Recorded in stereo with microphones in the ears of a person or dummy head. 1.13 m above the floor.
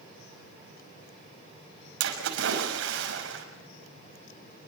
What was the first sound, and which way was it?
A splash, 70° right (ahead or behind).